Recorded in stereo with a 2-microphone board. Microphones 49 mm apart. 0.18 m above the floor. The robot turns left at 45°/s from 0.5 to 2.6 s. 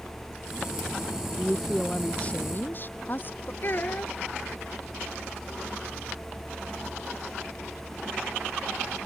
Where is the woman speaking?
170° right; by 3.5 s 135° left.